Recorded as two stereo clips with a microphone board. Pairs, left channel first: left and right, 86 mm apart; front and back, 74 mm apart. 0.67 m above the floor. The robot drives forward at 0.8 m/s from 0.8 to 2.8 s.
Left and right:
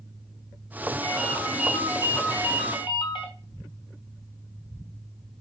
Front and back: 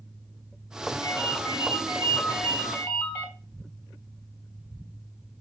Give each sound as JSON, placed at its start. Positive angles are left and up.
{"t": 1.0, "sound": "a ringtone", "azimuth_deg": 55, "distance_m": 5.0}